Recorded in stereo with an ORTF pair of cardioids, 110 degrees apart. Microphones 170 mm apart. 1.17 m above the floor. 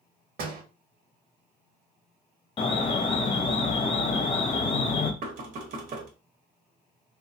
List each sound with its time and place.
0.4 s a door slam: 70° right, 1.1 m
2.6 s an alarm: 30° left, 0.8 m
5.2 s knocking: 55° right, 1.0 m